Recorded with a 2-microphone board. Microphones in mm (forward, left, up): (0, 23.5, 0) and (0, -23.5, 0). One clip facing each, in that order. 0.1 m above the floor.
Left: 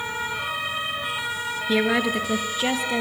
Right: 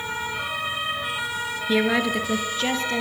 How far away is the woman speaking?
About 1.7 m.